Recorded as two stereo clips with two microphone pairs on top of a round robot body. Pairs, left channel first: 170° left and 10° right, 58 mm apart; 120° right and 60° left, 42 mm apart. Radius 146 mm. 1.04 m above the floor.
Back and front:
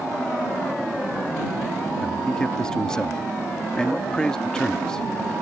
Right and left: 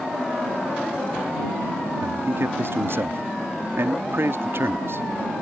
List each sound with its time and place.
2.0 s a man speaking: 85° left